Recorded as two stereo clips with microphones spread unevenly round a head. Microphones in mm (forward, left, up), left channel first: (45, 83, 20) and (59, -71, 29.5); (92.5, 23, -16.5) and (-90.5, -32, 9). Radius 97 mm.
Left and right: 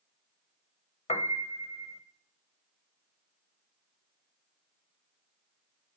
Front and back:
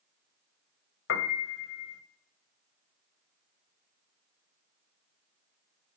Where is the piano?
45° left, 1.1 m.